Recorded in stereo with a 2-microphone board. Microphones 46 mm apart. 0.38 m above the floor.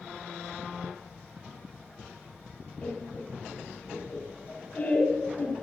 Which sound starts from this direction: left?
Laughter, at 2.8 s.